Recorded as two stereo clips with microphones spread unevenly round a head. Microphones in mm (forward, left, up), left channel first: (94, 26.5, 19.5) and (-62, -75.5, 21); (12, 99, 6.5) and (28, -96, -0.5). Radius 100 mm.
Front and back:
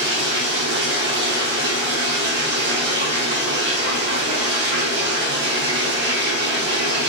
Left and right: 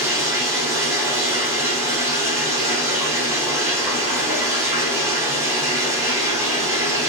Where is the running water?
160° right, 1.1 m.